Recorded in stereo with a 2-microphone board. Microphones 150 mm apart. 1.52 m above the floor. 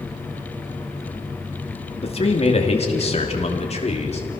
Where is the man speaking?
40° left (ahead or behind), 2.5 m; by 4.3 s 45° left (ahead or behind), 3.5 m.